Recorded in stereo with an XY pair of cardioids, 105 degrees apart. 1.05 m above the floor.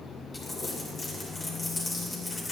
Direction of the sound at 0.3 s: 30° left.